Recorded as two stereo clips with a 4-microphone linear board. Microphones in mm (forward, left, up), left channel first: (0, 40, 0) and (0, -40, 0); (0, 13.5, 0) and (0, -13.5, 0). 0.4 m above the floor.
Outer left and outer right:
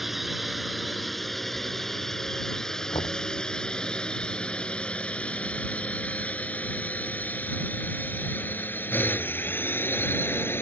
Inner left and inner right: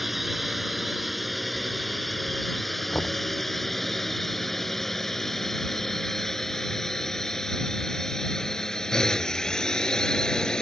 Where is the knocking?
80° left.